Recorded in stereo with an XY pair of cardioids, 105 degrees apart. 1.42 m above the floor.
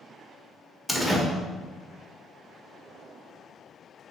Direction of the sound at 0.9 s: Straight ahead.